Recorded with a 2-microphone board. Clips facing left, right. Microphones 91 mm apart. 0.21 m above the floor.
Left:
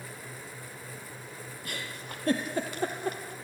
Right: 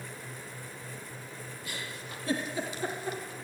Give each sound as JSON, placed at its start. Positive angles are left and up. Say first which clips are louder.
{"t": 1.6, "sound": "a giggle", "louder": "left 2 dB", "side_deg": 55, "distance_m": 3.5}